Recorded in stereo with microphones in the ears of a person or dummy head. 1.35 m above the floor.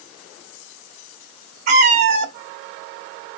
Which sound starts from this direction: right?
A cat meowing, at 1.7 s.